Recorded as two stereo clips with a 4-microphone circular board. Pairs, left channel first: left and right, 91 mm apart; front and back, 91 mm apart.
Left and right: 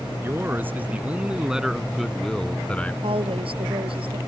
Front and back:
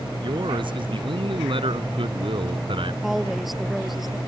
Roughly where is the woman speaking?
Right.